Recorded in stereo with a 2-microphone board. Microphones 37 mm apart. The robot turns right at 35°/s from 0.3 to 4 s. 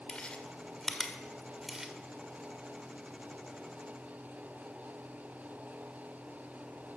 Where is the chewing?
25° left (ahead or behind), 1.6 m; by 1.9 s 15° right (ahead or behind), 1.6 m.